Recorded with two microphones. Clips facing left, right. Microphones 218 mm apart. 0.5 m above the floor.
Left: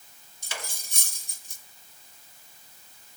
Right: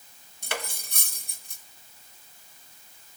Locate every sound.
0.4 s cutlery clinking: 60° right (ahead or behind), 1.2 m